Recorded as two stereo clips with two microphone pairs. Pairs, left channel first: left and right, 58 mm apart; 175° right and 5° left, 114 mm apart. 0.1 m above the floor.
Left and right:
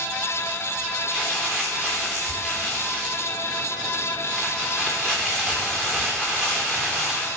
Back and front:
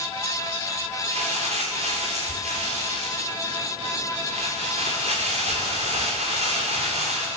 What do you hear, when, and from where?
1.1 s crumpling: 20° right, 5.5 m